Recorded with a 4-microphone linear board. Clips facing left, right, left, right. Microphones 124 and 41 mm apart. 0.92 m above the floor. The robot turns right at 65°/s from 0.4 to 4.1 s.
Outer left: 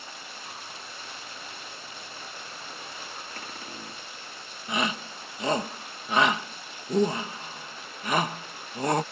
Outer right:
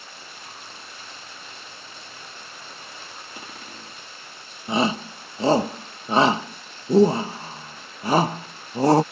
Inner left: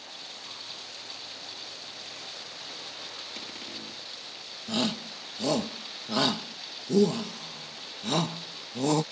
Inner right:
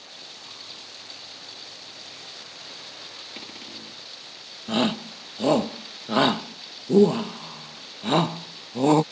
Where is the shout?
30° right (ahead or behind).